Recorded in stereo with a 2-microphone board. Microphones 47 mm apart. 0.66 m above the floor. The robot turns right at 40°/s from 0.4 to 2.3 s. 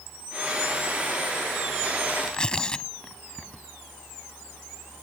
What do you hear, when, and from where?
2.2 s tearing paper: 15° left (ahead or behind)